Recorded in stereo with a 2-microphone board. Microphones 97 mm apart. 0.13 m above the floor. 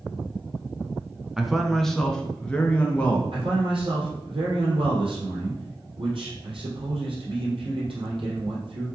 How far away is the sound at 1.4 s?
About 1.1 m.